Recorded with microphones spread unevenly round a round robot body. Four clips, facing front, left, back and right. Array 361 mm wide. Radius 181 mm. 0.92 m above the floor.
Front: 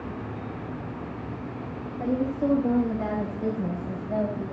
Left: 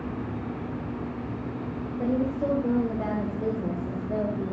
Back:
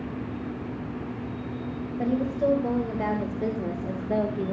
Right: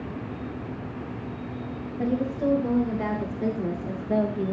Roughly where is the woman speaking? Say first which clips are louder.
Right 1 dB, back 1 dB; behind right.